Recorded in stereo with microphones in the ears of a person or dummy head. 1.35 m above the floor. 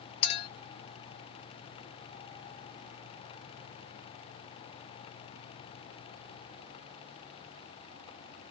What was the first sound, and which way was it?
A clink, 30° left (ahead or behind).